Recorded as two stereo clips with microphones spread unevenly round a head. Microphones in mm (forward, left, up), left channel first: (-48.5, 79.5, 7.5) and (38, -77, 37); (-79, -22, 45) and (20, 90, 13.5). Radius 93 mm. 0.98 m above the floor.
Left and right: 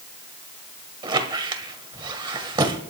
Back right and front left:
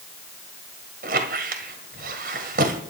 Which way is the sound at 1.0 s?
Straight ahead.